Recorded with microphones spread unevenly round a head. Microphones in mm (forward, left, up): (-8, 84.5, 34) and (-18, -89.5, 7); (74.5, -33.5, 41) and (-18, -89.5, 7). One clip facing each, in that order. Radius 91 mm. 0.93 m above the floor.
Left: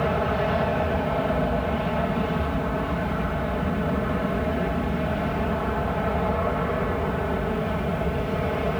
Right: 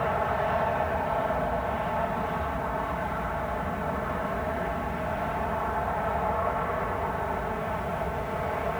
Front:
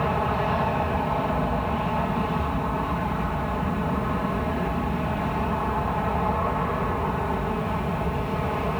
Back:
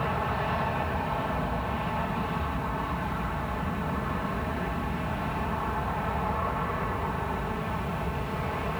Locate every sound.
0.0 s an aircraft: 75° left